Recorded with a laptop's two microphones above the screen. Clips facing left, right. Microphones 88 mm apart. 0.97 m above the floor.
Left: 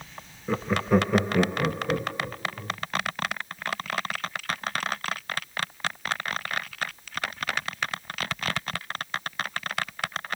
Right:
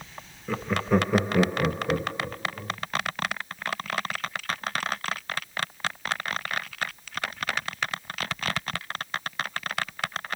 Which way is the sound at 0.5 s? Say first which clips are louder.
Left 1 dB; 10° left (ahead or behind).